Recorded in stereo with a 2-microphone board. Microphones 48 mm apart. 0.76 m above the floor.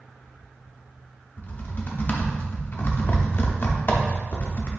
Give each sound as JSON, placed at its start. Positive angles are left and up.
{"t": 1.4, "sound": "typing on a keyboard", "side_deg": 45, "distance_m": 0.7}